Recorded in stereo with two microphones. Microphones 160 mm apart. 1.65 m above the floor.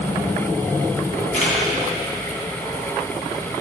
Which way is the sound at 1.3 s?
55° left (ahead or behind).